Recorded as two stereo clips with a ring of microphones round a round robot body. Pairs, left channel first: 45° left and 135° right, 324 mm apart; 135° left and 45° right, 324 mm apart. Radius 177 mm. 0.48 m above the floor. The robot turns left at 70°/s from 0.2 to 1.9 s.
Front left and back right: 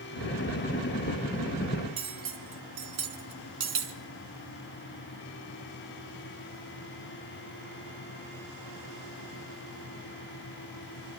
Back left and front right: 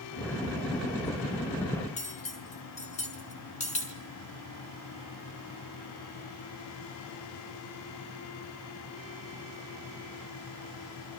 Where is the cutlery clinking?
155° right, 3.5 m.